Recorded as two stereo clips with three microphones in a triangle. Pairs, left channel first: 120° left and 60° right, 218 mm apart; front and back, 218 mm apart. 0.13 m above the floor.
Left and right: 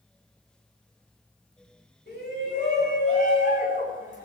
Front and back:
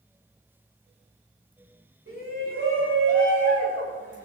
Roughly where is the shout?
Behind left.